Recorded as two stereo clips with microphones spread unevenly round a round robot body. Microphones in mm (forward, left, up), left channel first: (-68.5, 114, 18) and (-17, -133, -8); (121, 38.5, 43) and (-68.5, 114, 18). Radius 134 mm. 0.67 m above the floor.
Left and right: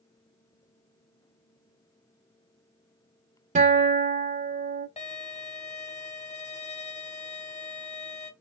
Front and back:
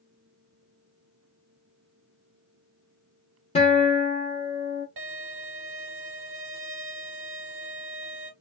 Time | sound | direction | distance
3.5 | a guitar | 70° right | 0.8 m
5.0 | a violin | 170° left | 0.8 m